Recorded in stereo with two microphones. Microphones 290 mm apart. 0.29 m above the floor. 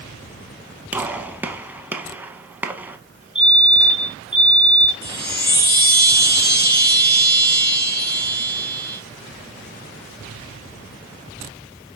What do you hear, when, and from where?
0.9 s a gunshot: 5° right (ahead or behind), 0.8 m
3.4 s a fire alarm: 15° left (ahead or behind), 2 m
5.0 s a chime: 35° left (ahead or behind), 3 m